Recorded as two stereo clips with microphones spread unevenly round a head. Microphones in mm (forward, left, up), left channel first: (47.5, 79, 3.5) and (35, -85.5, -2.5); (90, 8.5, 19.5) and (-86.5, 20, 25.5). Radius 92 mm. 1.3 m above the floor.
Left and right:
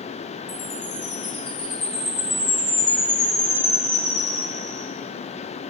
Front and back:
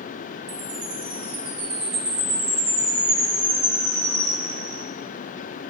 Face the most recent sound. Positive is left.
turn(degrees=175)